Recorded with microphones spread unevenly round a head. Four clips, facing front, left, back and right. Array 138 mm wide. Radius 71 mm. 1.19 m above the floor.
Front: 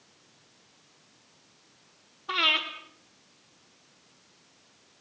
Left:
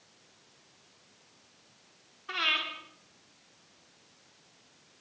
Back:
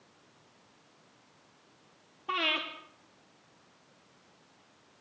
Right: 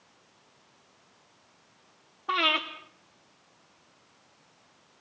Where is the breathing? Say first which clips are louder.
Right 7 dB, front 3 dB; 115° right, 3 m.